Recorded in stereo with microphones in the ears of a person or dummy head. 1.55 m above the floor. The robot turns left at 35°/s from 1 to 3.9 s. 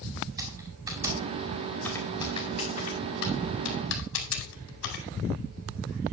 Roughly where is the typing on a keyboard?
Centre.